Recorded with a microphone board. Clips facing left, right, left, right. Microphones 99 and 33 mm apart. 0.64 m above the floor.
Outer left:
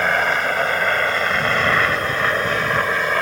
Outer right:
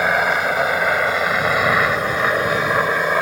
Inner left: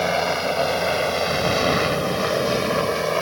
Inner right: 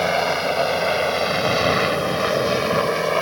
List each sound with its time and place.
0.0 s a helicopter: 5° right (ahead or behind); by 3.2 s 10° right (ahead or behind)